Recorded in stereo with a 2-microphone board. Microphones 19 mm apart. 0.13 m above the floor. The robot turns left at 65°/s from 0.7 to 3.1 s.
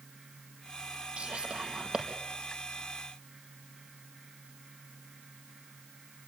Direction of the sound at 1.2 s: 70° right (ahead or behind).